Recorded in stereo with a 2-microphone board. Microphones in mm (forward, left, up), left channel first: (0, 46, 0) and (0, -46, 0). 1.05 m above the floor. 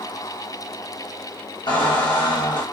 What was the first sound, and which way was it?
A squeak, 60° left (ahead or behind).